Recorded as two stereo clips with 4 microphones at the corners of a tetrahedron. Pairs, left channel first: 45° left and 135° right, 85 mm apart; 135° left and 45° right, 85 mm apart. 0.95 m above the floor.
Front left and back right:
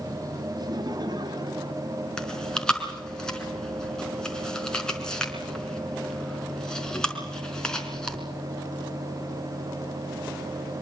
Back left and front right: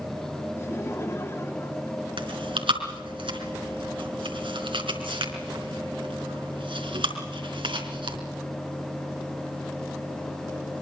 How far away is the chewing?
About 4 m.